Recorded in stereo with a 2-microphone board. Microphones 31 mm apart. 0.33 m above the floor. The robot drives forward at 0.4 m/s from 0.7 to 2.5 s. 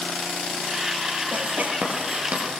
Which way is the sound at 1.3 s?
55° right (ahead or behind).